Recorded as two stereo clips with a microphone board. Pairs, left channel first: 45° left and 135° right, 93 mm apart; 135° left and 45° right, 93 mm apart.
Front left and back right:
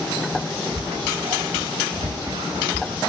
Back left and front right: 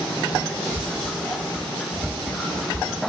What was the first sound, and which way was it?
Whispering, 140° right.